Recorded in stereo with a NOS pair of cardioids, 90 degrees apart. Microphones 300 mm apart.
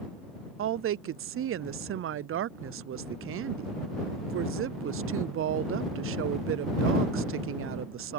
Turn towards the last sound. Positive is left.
turn(degrees=-45)